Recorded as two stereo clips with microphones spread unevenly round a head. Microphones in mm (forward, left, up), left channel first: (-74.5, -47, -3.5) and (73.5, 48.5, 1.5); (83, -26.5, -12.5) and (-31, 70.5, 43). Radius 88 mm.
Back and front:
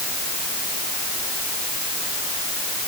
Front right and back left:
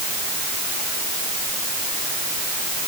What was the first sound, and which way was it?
Only background noise.